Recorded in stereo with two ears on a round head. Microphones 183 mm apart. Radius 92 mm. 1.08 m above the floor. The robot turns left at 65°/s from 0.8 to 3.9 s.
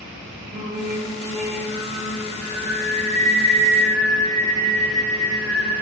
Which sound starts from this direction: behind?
Singing, at 0.5 s.